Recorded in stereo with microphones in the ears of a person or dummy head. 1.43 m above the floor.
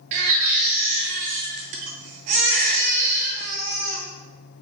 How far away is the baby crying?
About 0.5 m.